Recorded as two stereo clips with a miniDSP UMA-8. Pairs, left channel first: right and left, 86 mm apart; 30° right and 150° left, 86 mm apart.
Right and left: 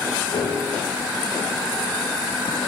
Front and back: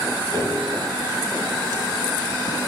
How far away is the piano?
About 9 m.